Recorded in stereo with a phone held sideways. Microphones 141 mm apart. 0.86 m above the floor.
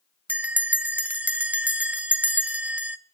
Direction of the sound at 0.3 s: 10° right (ahead or behind).